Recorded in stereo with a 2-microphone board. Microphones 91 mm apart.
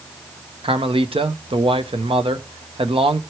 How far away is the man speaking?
About 1.0 m.